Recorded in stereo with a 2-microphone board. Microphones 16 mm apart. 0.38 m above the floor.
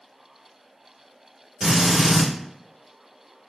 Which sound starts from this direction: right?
A drill, at 1.6 s.